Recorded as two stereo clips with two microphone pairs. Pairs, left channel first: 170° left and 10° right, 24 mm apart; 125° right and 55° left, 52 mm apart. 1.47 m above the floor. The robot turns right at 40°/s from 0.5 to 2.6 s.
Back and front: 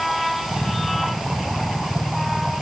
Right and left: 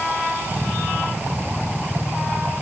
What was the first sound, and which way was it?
Only background noise.